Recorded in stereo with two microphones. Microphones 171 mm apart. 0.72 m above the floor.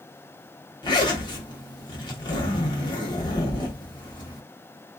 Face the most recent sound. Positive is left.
turn(degrees=25)  # may be behind; listen again after turning